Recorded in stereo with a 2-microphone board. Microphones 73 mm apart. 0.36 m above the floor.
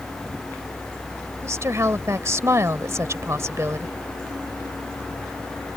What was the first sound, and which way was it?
A woman speaking, 40° right (ahead or behind).